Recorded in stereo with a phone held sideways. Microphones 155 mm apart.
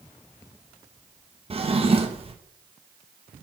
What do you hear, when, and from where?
1.5 s a drawer: 40° right (ahead or behind), 0.8 m